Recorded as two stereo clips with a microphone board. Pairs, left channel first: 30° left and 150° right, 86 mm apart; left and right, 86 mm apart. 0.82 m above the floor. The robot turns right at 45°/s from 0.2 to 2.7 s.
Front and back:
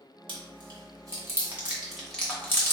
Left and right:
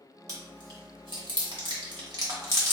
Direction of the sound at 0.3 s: 135° right.